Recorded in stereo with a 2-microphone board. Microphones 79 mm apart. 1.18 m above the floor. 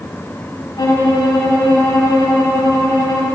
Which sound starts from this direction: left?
A violin, at 0.8 s.